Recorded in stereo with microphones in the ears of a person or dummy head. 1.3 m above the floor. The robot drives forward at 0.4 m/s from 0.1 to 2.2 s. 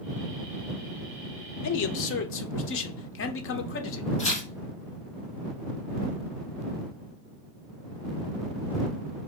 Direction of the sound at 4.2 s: 25° left (ahead or behind).